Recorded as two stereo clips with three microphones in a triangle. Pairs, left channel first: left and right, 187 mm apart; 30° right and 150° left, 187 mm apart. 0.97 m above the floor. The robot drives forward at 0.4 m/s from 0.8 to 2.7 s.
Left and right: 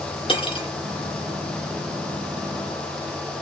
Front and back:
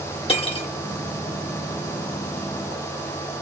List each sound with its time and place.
0.3 s cutlery clinking: 30° left, 1.2 m